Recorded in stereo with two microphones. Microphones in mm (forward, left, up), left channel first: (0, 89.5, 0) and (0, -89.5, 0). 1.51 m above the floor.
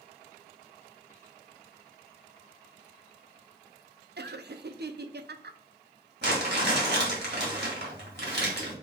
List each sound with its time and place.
4.2 s laughter: 70° right (ahead or behind), 0.6 m
6.2 s crumpling: 70° right (ahead or behind), 2 m